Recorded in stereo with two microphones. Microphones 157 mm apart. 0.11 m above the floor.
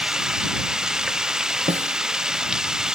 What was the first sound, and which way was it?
Running water, 5° right (ahead or behind).